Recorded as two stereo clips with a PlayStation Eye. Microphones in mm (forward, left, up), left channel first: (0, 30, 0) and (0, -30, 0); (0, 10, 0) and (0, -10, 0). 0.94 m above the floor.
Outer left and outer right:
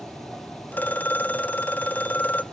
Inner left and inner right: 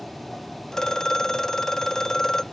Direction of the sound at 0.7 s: 30° left (ahead or behind).